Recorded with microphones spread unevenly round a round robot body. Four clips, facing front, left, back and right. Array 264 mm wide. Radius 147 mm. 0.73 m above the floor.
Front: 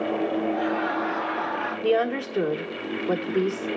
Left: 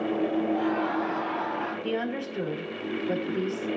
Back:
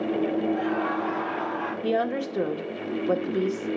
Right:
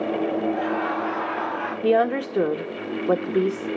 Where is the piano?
I don't hear a piano.